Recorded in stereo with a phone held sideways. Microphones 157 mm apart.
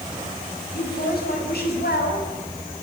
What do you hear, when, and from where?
0.7 s a woman speaking: 90° left, 9 m; by 2.3 s 80° left, 8.5 m